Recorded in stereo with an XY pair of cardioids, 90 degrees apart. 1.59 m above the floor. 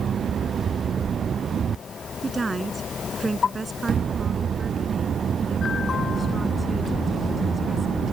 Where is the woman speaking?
25° right; by 8.0 s 20° right.